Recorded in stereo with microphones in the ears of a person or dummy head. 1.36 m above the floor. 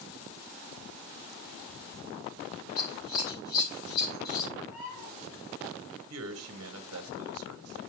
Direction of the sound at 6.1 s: 65° right (ahead or behind).